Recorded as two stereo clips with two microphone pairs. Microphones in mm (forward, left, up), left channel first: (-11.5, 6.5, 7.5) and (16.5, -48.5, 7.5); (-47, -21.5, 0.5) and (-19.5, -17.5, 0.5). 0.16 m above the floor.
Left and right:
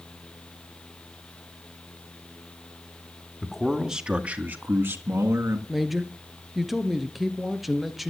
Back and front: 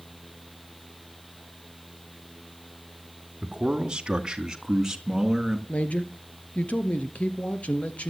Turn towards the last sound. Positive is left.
turn(degrees=-150)